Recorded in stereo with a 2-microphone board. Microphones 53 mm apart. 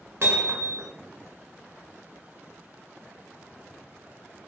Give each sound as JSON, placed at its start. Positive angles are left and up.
{"t": 0.2, "sound": "hammering", "side_deg": -50, "distance_m": 1.0}